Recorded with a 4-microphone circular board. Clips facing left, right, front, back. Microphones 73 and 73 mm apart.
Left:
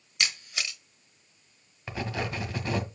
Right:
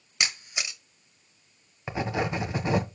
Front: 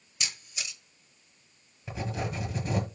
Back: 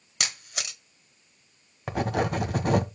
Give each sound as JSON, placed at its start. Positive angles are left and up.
{"t": 0.2, "sound": "a camera shutter", "azimuth_deg": -160, "distance_m": 1.5}
{"t": 1.9, "sound": "writing", "azimuth_deg": -160, "distance_m": 1.5}